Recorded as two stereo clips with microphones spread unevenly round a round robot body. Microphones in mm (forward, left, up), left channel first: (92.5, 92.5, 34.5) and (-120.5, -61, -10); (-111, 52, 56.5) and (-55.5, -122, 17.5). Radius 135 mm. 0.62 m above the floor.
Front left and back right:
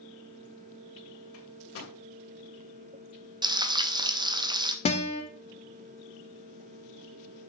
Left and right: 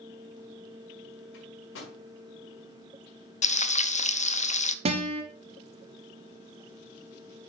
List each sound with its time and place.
1.3 s a microwave: 75° left, 2.5 m
3.4 s frying: 160° left, 0.6 m
4.8 s a guitar: 35° right, 1.0 m